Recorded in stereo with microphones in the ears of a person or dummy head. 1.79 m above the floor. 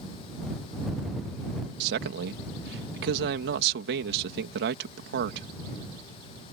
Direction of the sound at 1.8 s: 65° right (ahead or behind).